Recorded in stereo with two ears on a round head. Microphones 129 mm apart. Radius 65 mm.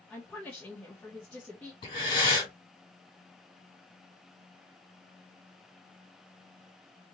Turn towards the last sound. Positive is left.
turn(degrees=35)  # may be behind; listen again after turning